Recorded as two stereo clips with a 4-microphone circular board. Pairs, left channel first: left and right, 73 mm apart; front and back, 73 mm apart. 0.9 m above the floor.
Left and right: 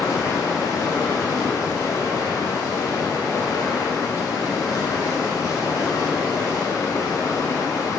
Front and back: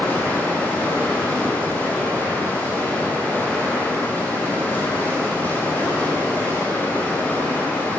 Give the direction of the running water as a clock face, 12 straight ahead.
10 o'clock.